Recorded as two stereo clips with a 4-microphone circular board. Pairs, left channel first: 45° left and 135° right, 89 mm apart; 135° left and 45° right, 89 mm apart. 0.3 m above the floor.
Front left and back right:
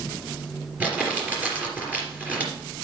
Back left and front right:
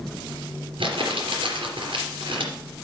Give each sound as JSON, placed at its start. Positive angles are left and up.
{"t": 0.8, "sound": "crumpling", "azimuth_deg": -60, "distance_m": 3.5}